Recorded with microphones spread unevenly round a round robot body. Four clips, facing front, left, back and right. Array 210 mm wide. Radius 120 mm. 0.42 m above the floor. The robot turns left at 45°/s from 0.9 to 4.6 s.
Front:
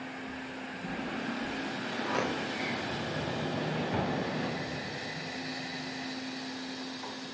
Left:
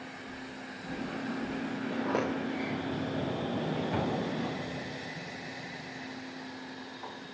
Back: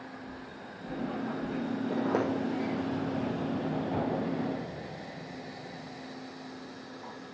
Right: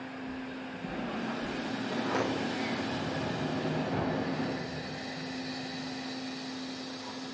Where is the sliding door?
175° left, 3.5 m; by 7.1 s 55° left, 3.5 m.